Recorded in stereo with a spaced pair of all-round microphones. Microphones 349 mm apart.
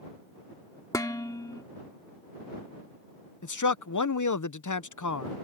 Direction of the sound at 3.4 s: 55° left (ahead or behind).